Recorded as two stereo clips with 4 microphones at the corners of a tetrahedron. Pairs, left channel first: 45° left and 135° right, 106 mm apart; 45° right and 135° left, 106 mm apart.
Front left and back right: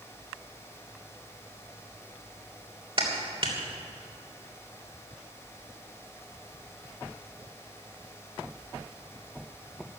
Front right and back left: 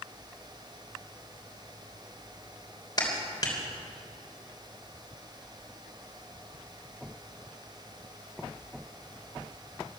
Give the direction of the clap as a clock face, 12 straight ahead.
3 o'clock.